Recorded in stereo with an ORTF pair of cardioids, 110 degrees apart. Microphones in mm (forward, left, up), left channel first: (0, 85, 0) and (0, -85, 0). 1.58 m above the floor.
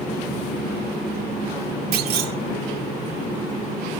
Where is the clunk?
65° right, 1.8 m.